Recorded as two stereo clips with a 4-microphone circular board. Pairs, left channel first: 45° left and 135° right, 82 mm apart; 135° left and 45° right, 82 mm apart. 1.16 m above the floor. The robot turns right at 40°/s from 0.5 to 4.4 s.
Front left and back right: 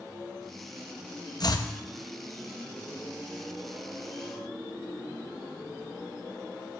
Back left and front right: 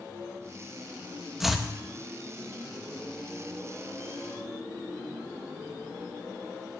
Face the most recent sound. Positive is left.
turn(degrees=160)